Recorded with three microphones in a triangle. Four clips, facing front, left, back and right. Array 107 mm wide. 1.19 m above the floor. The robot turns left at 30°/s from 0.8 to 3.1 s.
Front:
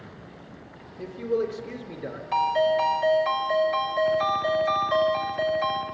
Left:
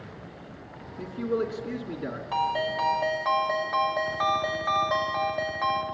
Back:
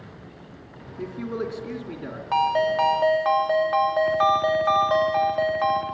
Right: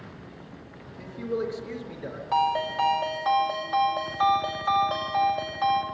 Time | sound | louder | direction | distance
1.0 | a man speaking | left 2 dB, front 3 dB | 155° left | 3 m
2.3 | a ringtone | right 3 dB, back 1 dB | 170° right | 1.8 m